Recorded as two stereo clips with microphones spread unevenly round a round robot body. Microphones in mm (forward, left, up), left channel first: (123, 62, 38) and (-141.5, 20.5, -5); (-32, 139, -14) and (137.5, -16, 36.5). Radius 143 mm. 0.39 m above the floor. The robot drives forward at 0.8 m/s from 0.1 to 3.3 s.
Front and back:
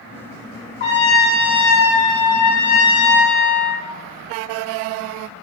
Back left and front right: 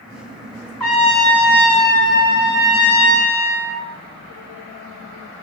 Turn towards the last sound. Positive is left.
turn(degrees=85)